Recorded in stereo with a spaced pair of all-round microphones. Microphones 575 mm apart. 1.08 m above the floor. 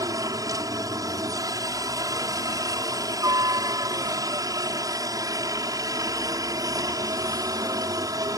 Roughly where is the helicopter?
Centre.